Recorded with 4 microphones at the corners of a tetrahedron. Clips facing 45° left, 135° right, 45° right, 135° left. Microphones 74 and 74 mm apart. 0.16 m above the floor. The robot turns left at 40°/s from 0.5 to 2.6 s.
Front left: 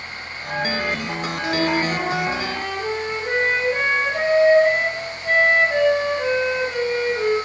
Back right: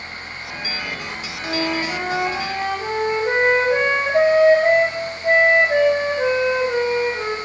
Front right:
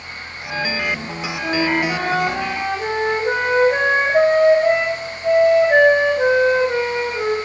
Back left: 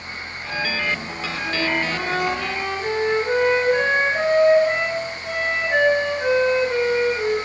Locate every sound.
1.4 s a flute: 30° right, 4 m; by 7.4 s 75° right, 4 m